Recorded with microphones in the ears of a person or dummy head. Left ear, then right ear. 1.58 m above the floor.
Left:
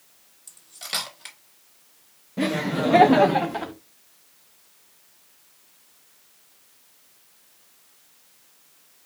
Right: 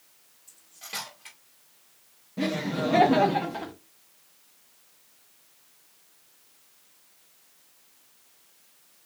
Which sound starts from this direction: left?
Cutlery clinking, at 0.5 s.